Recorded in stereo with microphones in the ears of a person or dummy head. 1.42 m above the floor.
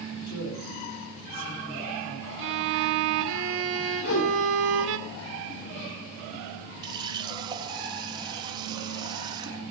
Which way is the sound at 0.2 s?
80° left.